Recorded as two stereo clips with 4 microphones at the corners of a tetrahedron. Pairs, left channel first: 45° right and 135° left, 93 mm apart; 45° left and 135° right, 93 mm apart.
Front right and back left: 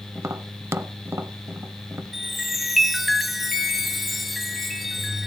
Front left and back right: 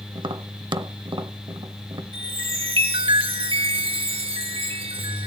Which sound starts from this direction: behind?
Tapping, at 0.1 s.